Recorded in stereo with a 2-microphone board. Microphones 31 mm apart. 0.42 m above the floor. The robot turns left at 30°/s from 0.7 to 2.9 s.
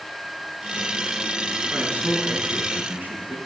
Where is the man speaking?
60° right, 4.5 m; by 3.4 s 95° right, 4.5 m.